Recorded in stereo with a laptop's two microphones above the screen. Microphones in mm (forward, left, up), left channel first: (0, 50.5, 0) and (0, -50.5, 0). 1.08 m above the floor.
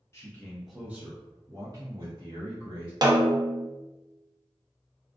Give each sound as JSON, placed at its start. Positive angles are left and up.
{"t": 0.1, "sound": "a man speaking", "side_deg": 25, "distance_m": 0.6}
{"t": 3.0, "sound": "a snare drum", "side_deg": -40, "distance_m": 0.5}